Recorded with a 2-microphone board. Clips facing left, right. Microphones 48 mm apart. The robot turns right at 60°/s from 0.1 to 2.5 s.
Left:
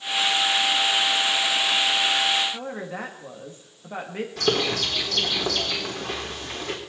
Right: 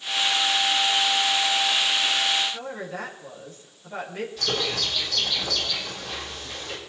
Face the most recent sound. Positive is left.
turn(degrees=75)  # may be behind; listen again after turning